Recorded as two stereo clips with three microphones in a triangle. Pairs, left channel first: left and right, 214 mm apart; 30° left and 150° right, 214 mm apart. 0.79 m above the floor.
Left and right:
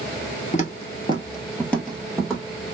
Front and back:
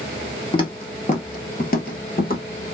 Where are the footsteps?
80° left, 0.9 m; by 2.4 s 5° right, 1.4 m.